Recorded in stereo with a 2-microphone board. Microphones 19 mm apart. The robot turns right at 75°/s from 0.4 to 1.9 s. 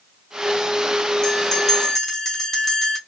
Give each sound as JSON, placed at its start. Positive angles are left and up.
{"t": 1.2, "sound": "a bell", "azimuth_deg": 105, "distance_m": 1.3}